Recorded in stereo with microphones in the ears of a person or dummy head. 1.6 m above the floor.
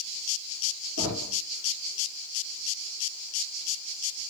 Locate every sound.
1.0 s knocking: 75° right (ahead or behind), 2.5 m